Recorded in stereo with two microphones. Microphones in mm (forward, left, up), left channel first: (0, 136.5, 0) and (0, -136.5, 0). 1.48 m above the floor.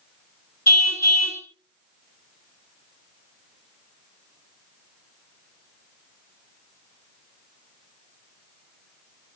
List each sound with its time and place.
0.7 s a car horn: 70° left (ahead or behind), 4.5 m